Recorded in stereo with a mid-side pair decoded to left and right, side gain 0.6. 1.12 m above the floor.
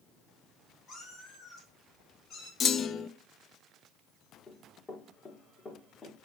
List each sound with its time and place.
0.9 s a cat meowing: 40° left, 5 m; by 2.5 s 45° left, 7.5 m
2.6 s a clunk: 40° left, 0.5 m
4.5 s running footsteps: 35° left, 4.5 m